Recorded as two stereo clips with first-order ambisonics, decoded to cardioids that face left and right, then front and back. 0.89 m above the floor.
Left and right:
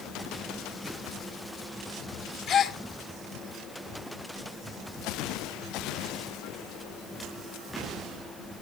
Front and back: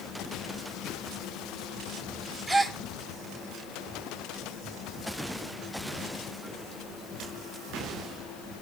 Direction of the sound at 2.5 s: 95° left.